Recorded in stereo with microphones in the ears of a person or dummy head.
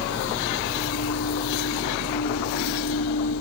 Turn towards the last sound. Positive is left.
turn(degrees=80)